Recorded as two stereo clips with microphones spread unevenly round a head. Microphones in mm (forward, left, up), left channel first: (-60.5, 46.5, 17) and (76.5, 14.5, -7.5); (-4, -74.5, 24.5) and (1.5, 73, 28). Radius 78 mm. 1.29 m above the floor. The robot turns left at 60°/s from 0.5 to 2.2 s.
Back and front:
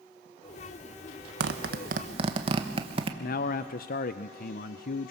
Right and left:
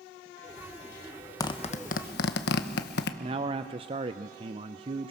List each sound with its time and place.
1.4 s a zipper: 25° right, 1.0 m; by 3.1 s 75° right, 1.0 m
3.2 s a man speaking: 145° left, 0.5 m